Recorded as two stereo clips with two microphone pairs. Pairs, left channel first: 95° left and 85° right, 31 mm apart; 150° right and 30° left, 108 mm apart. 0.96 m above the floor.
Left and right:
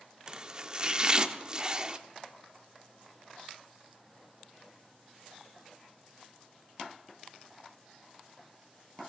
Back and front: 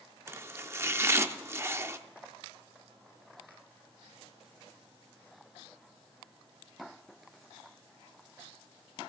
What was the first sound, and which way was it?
Chopping, 25° right.